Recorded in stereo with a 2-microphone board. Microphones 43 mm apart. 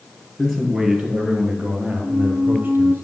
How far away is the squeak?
About 1.2 m.